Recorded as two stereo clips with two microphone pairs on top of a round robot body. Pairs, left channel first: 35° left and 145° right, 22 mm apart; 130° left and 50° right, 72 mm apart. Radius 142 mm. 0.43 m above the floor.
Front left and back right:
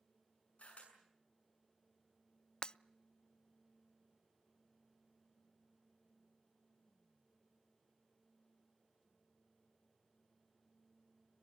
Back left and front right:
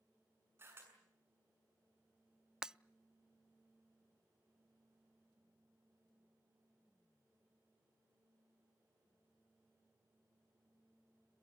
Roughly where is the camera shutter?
Ahead.